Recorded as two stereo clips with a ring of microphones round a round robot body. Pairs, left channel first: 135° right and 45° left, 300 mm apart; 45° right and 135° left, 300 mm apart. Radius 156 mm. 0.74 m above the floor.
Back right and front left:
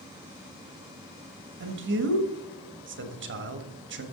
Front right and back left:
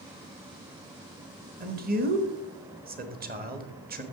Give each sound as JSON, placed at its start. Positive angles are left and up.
{"t": 1.6, "sound": "a man speaking", "azimuth_deg": 85, "distance_m": 1.5}